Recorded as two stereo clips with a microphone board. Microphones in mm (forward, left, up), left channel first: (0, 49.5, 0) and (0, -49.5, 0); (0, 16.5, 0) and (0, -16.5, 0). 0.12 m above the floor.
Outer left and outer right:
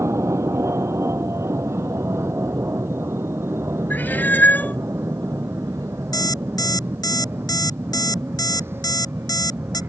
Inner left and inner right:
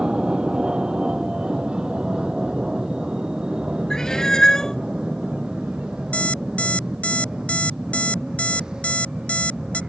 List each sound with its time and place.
0.0 s an aircraft: 30° right (ahead or behind); by 9.9 s 25° right (ahead or behind)
3.9 s a cat meowing: 20° left (ahead or behind)
6.1 s an alarm clock: 40° left (ahead or behind)